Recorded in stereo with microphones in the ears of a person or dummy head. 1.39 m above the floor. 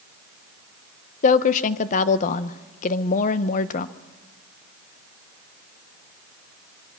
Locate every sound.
1.2 s a woman speaking: 45° left (ahead or behind), 1.0 m